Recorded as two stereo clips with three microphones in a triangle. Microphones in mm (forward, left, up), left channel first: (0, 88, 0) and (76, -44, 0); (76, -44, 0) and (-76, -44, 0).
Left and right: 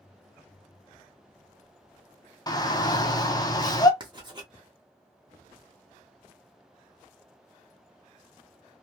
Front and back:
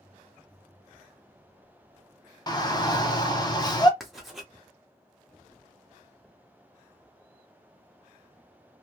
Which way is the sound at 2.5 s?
60° left.